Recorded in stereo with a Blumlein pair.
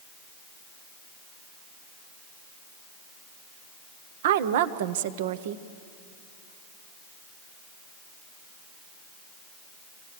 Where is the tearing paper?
I don't hear tearing paper.